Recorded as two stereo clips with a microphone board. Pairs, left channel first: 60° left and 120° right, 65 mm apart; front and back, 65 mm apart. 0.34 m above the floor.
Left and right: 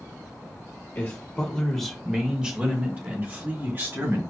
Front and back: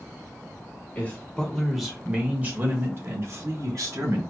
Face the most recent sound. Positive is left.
turn(degrees=-160)